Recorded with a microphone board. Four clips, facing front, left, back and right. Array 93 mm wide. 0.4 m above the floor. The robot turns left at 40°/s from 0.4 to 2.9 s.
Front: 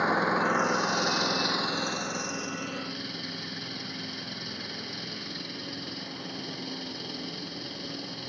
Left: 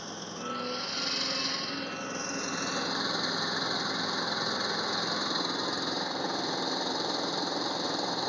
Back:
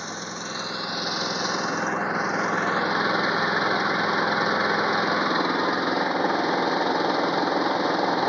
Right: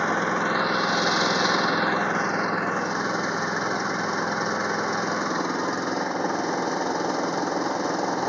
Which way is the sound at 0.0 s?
60° right.